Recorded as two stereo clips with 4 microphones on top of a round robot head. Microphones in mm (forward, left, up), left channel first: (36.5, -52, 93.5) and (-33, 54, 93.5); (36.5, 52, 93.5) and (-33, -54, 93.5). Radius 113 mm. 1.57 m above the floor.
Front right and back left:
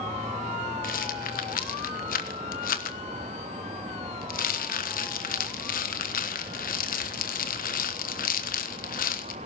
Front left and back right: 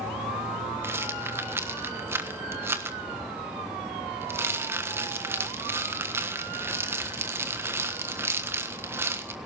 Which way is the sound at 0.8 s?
50° right.